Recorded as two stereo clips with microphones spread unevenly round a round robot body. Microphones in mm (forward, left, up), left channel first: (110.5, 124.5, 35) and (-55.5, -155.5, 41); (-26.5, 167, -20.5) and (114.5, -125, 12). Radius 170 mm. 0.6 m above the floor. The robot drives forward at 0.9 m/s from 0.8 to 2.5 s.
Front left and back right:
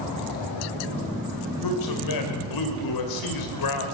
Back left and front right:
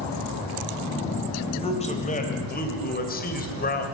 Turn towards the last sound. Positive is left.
turn(degrees=55)